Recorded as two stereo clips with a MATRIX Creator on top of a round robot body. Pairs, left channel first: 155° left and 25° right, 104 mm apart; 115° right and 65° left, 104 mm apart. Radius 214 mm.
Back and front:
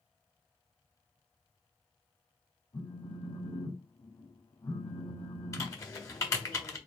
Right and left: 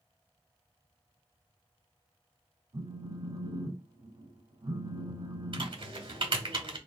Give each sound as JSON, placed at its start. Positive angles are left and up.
{"t": 2.7, "sound": "a phone buzzing", "azimuth_deg": 115, "distance_m": 2.5}
{"t": 5.5, "sound": "typing on a keyboard", "azimuth_deg": 100, "distance_m": 1.5}